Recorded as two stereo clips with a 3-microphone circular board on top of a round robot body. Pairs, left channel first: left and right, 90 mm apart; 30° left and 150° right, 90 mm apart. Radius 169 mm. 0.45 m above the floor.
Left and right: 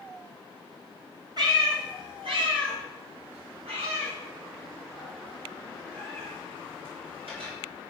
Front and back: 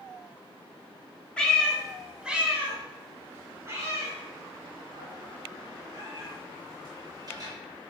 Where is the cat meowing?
50° right, 1.8 m; by 7.5 s 105° right, 6 m.